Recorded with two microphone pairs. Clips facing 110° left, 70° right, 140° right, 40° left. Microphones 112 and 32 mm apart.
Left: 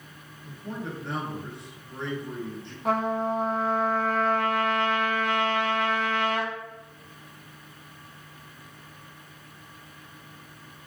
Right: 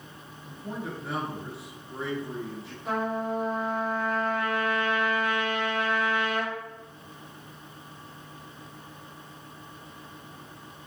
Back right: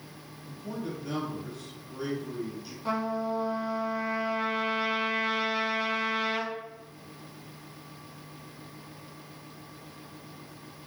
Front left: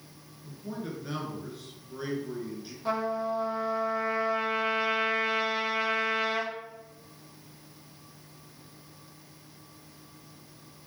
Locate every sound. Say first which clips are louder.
0.4 s a man speaking: even, back right 1 dB; 5° left, 1.3 m
2.9 s a trumpet: left 3 dB, front left 1 dB; 125° left, 1.7 m